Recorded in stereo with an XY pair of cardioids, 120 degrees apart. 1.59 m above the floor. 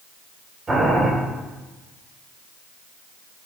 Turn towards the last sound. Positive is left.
turn(degrees=-20)